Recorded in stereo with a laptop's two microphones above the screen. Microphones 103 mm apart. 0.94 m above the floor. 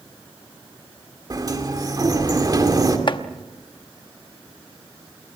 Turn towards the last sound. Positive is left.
turn(degrees=50)  # may be behind; listen again after turning